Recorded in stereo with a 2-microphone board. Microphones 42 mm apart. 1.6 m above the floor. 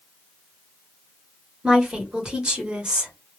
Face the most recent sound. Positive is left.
turn(degrees=-20)  # may be behind; listen again after turning